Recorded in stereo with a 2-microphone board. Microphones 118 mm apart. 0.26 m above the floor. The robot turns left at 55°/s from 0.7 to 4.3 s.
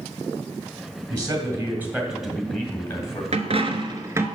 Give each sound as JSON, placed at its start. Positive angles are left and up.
{"t": 1.1, "sound": "a man speaking", "azimuth_deg": -115, "distance_m": 1.9}
{"t": 3.3, "sound": "a dropped coin", "azimuth_deg": -110, "distance_m": 0.8}